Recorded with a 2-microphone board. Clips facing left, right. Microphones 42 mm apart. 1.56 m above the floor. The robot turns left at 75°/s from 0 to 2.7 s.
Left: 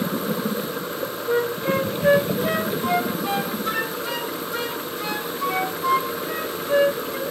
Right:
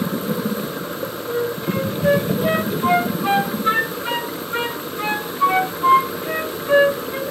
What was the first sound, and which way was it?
A flute, 65° left (ahead or behind).